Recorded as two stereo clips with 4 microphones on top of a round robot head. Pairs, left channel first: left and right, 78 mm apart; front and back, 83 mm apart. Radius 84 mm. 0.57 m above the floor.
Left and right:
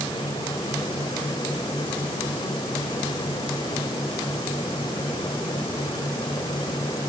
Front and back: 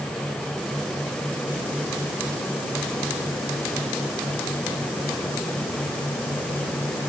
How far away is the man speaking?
I don't hear a man speaking.